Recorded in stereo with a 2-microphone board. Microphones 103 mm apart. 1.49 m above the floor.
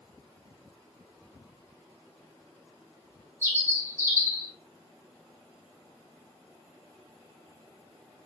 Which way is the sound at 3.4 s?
25° right (ahead or behind).